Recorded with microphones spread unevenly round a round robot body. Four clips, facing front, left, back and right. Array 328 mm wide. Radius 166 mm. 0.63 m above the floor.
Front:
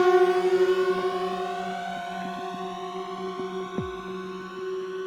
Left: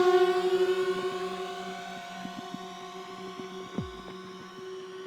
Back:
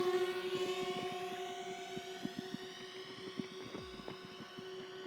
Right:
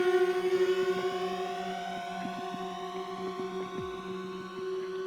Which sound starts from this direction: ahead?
A drone, at 0.0 s.